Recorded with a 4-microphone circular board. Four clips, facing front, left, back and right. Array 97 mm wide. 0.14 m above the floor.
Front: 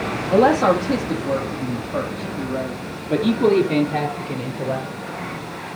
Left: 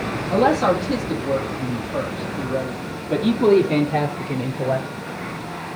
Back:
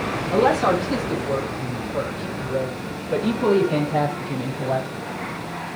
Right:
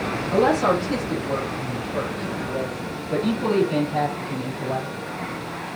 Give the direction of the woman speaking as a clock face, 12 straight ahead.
11 o'clock.